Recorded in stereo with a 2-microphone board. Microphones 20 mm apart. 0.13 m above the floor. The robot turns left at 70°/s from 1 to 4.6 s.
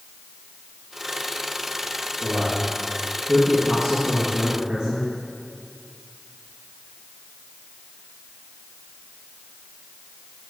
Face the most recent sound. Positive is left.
turn(degrees=-75)